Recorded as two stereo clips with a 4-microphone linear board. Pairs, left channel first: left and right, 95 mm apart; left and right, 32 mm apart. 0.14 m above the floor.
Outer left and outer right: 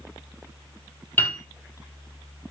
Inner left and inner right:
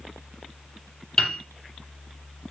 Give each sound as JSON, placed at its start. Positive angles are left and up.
{"t": 1.2, "sound": "a piano", "side_deg": 20, "distance_m": 2.0}